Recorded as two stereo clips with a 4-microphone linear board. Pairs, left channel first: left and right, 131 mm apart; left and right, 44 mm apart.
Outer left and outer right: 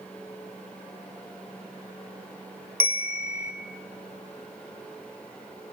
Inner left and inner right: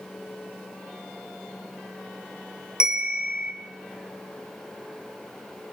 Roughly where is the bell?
Centre.